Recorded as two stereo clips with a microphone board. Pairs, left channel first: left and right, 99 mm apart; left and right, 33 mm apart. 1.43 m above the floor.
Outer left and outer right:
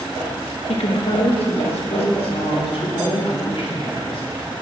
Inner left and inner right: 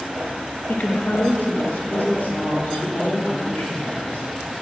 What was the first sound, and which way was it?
A woman speaking, 70° left (ahead or behind).